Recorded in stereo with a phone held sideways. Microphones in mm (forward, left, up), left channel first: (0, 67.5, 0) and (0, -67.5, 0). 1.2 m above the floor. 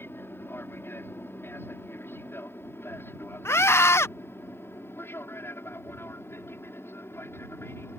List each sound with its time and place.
0.0 s an aircraft: 15° left (ahead or behind)
3.5 s a scream: 20° left (ahead or behind)